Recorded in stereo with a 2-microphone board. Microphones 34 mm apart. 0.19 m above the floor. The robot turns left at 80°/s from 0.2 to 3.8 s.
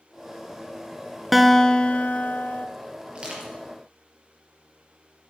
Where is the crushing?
35° right (ahead or behind), 3.5 m; by 3.5 s 5° right (ahead or behind), 3.5 m.